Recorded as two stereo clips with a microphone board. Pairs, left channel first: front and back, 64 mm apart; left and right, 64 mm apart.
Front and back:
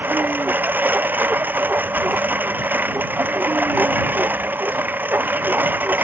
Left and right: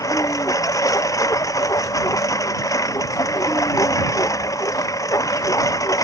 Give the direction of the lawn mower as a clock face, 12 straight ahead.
8 o'clock.